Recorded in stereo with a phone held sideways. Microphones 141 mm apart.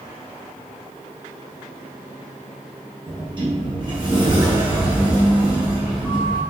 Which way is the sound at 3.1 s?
35° right (ahead or behind).